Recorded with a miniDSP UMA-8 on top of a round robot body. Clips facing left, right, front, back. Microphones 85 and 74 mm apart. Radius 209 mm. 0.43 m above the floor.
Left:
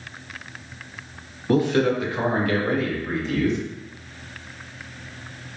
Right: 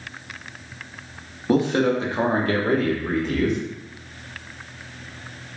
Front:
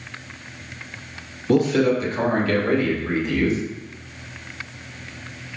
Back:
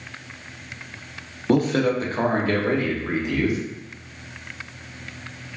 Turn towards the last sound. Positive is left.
turn(degrees=-105)